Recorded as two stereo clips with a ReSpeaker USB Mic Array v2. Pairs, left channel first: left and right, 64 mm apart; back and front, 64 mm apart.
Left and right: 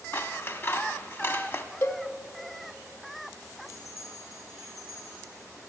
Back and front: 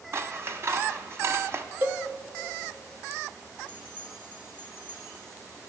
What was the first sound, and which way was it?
Scissors, 40° left.